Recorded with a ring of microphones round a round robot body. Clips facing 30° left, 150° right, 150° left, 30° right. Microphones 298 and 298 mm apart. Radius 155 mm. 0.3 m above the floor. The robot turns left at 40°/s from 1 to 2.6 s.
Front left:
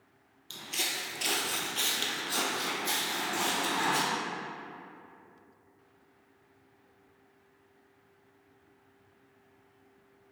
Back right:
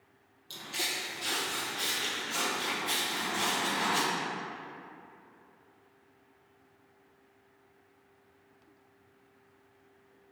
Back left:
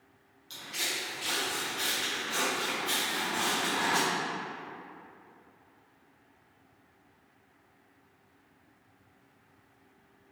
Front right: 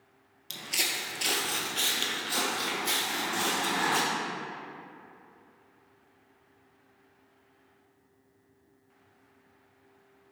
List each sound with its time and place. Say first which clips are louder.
0.5 s footsteps: back right 1 dB, front right 2 dB; 45° right, 0.6 m; by 4.0 s straight ahead, 1.7 m